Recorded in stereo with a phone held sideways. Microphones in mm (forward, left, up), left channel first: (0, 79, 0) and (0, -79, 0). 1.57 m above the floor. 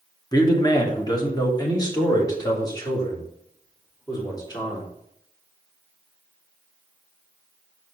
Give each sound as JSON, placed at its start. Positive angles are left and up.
{"t": 0.3, "sound": "a man speaking", "side_deg": 25, "distance_m": 1.2}